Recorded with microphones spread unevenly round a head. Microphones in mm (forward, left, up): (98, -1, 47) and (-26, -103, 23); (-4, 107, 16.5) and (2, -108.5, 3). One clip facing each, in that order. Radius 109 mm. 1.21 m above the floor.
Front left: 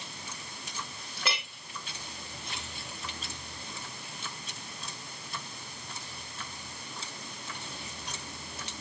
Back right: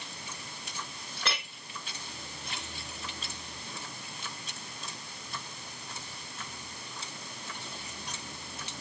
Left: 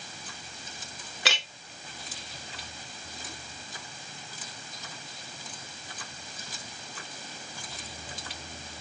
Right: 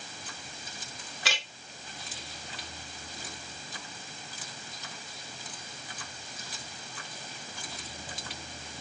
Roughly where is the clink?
Behind left.